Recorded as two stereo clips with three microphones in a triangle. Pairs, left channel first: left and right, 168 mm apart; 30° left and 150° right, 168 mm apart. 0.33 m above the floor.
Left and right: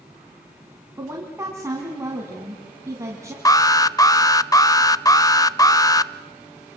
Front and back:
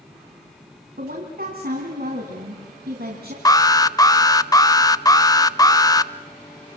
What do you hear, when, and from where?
1.0 s a woman speaking: 160° right, 3.5 m
3.5 s an alarm: 60° left, 0.5 m